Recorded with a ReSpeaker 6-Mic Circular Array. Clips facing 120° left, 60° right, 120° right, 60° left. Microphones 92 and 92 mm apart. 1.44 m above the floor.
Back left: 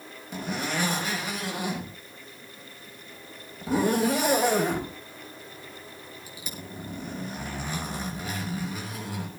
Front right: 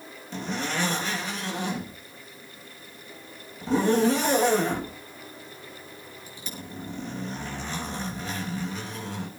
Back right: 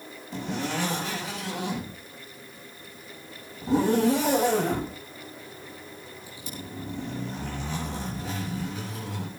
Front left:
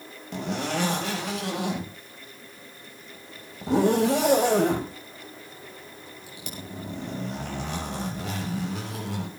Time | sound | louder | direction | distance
0.3 | a zipper | even, front left 2 dB | 40° left | 6 m